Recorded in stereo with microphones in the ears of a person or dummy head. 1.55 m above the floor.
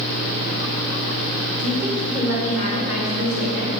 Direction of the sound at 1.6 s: 60° right (ahead or behind).